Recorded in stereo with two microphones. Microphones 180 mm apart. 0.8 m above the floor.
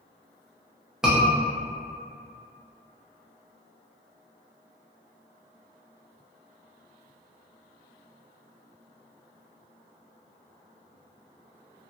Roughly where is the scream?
Centre.